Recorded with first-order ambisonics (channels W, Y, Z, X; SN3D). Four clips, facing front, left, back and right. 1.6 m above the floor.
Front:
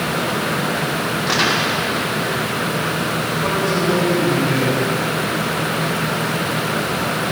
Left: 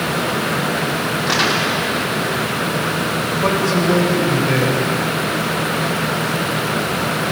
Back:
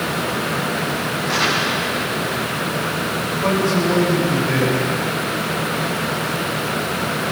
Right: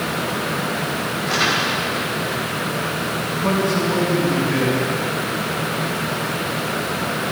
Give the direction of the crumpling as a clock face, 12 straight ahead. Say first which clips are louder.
Left 1 dB, front 1 dB; 10 o'clock.